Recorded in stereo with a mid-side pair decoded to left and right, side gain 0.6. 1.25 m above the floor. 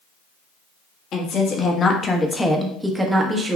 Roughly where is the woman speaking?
Ahead left.